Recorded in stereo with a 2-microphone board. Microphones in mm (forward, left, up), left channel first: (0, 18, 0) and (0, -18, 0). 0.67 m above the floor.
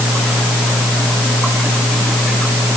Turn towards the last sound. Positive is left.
No sound to turn to.